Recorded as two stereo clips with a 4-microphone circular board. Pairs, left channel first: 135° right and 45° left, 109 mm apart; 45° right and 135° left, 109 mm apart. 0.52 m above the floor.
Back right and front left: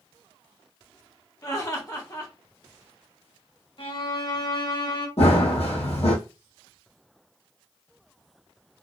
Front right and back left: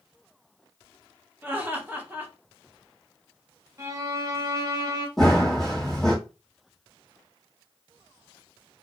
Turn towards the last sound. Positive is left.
turn(degrees=-130)